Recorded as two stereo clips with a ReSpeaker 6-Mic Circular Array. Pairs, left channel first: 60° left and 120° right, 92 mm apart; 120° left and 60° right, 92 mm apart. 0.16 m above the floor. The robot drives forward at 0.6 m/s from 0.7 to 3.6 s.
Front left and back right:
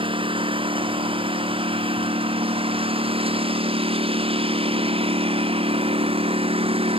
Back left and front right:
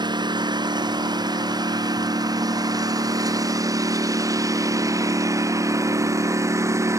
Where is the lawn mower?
100° right; by 7.0 s 120° right.